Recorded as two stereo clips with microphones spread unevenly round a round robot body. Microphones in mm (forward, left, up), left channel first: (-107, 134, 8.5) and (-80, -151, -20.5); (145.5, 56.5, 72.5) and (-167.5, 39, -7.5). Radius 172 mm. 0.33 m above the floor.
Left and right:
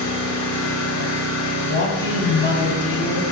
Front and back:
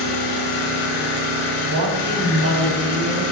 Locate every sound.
0.0 s an engine running: 15° left, 2.0 m
1.6 s a man speaking: 150° left, 3.5 m